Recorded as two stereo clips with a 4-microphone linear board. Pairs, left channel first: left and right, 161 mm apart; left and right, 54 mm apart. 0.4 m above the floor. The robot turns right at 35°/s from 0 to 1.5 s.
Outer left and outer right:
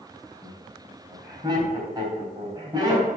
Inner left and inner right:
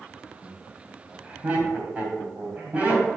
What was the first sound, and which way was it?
Laughter, 10° left (ahead or behind).